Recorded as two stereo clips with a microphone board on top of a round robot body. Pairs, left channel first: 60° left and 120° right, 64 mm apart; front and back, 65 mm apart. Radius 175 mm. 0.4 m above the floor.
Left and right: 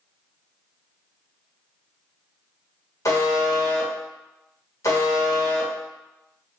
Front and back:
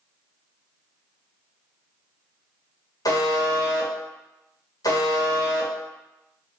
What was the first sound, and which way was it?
A buzzer, 20° left.